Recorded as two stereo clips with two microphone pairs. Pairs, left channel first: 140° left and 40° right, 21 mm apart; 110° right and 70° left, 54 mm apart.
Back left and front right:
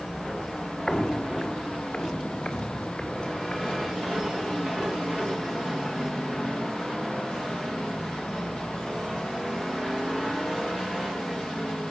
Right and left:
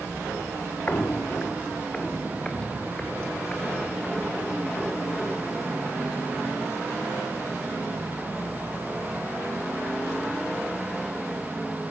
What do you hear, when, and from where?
0.9 s footsteps: 165° right, 0.7 m; by 4.7 s 175° left, 6.5 m